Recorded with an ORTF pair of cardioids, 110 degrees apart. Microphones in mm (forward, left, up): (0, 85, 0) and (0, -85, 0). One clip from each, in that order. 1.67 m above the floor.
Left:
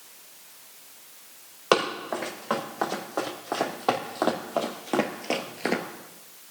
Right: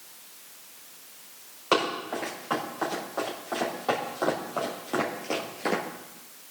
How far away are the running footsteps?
About 6.5 m.